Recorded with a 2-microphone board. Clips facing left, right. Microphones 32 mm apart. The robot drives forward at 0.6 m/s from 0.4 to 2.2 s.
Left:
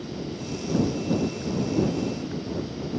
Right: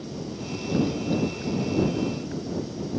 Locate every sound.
Only background noise.